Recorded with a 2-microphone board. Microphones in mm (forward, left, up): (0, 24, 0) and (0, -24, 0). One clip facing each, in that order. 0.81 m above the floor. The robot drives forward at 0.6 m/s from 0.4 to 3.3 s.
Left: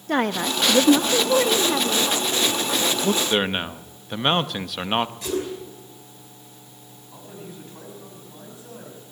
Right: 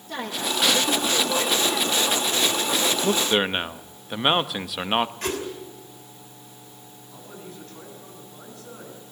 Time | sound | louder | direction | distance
0.1 | a woman speaking | left 6 dB | 60° left (ahead or behind) | 0.7 m
3.0 | a man speaking | even | 10° right (ahead or behind) | 0.5 m
5.2 | a whoosh | left 2 dB | 50° right (ahead or behind) | 5 m
7.1 | a man speaking | left 2 dB | 20° left (ahead or behind) | 7 m